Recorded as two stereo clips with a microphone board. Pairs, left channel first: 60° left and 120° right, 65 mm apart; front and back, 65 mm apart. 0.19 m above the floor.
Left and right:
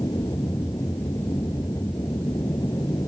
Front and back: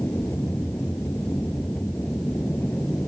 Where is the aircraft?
60° left; by 3.1 s 65° left.